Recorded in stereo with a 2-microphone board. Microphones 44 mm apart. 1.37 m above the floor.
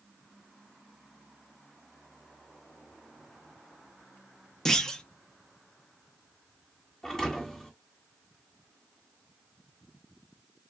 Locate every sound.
4.7 s a clunk: 15° left (ahead or behind), 0.6 m
7.0 s a thud: 15° left (ahead or behind), 1.9 m